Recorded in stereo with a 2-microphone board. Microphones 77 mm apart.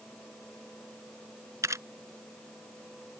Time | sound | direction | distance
1.6 | a camera shutter | 40° right (ahead or behind) | ?